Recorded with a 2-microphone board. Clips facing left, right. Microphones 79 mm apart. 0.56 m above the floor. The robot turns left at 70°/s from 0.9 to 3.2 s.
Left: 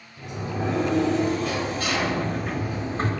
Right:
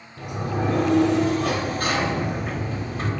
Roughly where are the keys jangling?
No keys jangling in this recording.